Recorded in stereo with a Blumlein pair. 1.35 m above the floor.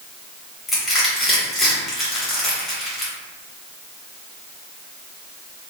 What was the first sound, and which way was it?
Crushing, 10° left.